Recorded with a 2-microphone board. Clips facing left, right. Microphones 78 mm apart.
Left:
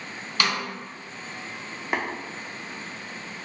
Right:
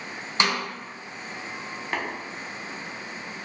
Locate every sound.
0.4 s a snare drum: 25° right (ahead or behind), 0.7 m
1.9 s tapping: 15° left (ahead or behind), 0.6 m